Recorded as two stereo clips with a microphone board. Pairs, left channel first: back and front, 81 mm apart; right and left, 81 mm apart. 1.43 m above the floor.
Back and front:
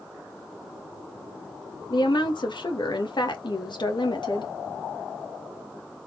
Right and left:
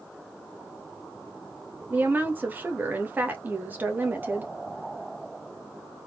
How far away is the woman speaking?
About 1.7 m.